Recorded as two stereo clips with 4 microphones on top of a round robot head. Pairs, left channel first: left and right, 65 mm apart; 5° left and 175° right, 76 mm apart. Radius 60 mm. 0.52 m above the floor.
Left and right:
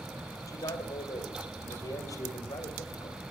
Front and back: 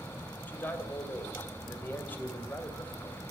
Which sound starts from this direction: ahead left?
A man speaking, at 0.5 s.